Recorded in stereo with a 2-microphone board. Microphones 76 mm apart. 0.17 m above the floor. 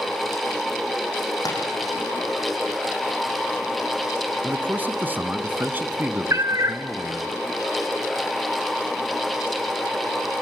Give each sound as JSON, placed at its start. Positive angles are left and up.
{"t": 1.4, "sound": "tapping", "side_deg": 55, "distance_m": 7.5}
{"t": 4.4, "sound": "a man speaking", "side_deg": -25, "distance_m": 1.5}
{"t": 6.3, "sound": "a cat meowing", "side_deg": -45, "distance_m": 1.0}